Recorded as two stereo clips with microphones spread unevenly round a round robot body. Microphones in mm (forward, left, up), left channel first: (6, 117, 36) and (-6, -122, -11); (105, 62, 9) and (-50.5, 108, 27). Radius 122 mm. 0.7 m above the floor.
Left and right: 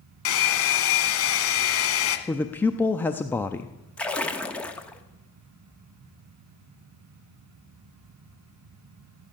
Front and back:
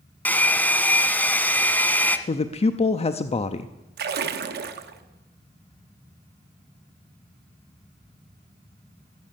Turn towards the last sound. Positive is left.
turn(degrees=180)